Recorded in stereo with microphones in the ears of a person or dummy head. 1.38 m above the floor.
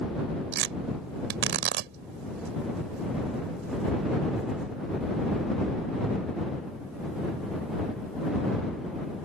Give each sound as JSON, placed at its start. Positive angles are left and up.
{"t": 0.5, "sound": "tearing paper", "side_deg": -65}